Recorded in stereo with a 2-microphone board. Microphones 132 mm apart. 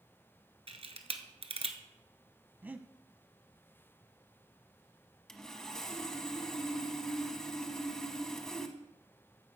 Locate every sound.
0.7 s a camera shutter: 50° right (ahead or behind), 1.0 m
2.6 s breathing: 15° right (ahead or behind), 0.6 m
5.3 s sawing: 5° left (ahead or behind), 1.0 m